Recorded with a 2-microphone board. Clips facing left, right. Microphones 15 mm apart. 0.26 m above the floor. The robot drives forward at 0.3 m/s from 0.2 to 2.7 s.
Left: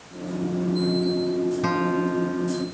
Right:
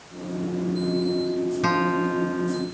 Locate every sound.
1.6 s a guitar: 25° right (ahead or behind); by 2.6 s 20° right (ahead or behind)